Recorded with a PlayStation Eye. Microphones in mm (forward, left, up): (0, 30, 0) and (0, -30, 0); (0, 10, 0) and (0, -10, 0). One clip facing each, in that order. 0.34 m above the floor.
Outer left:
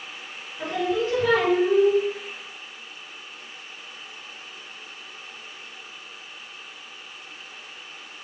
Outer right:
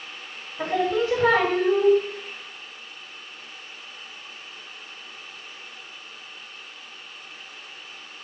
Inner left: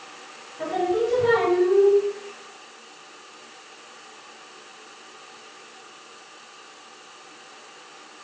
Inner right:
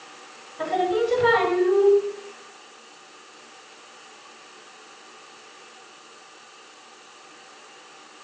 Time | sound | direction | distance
0.6 | singing | 60° right (ahead or behind) | 0.5 m